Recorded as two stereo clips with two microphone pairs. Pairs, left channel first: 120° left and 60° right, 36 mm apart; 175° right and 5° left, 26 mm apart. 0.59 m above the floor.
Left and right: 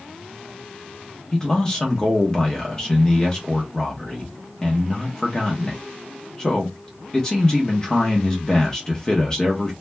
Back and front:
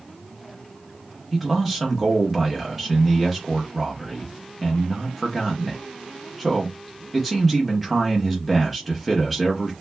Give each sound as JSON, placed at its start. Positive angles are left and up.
{"t": 1.3, "sound": "a man speaking", "azimuth_deg": 80, "distance_m": 0.9}